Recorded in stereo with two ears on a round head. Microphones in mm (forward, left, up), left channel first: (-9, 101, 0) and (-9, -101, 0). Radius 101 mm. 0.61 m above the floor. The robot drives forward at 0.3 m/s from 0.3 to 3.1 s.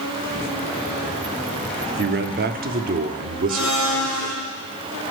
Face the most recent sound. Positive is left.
turn(degrees=0)  # may be behind; listen again after turning